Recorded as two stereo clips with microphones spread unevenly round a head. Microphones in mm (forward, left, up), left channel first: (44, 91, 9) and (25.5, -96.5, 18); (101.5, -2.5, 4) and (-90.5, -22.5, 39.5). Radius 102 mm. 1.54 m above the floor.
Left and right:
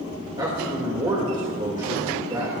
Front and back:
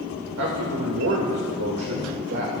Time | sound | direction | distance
0.4 | a man speaking | 165° right | 2 m